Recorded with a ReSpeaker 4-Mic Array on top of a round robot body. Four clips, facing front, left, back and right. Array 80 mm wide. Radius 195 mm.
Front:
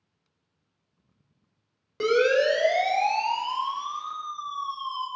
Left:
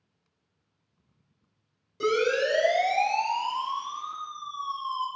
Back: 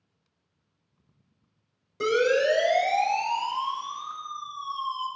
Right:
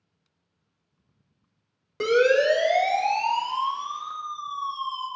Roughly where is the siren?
Ahead right.